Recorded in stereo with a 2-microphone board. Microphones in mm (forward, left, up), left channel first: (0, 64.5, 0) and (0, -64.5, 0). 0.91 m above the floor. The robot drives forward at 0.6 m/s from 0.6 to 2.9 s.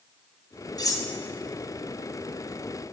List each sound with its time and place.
0.8 s cutlery clinking: 30° left (ahead or behind), 0.7 m; by 1.1 s 25° left (ahead or behind), 0.8 m